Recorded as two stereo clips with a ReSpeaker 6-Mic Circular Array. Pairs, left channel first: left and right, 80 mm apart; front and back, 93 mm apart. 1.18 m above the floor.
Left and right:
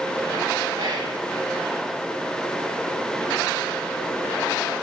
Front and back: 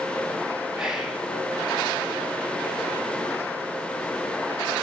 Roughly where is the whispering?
Right.